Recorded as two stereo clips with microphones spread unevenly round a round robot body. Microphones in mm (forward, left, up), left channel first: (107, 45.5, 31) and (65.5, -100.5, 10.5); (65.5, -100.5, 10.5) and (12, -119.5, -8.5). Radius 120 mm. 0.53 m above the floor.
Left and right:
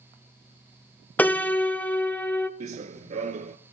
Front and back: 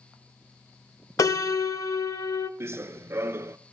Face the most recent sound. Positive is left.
turn(degrees=-115)